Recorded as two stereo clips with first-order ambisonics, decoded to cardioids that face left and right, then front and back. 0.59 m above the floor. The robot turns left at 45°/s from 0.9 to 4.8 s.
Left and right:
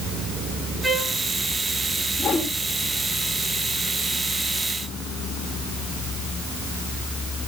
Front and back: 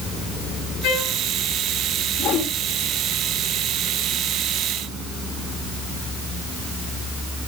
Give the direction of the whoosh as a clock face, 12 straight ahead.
11 o'clock.